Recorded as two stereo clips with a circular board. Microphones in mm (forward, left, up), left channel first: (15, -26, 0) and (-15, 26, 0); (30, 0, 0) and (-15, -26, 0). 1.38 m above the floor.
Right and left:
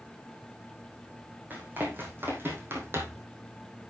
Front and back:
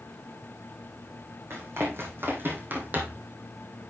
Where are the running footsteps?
Straight behind, 3.5 m; by 3.3 s 155° left, 2.5 m.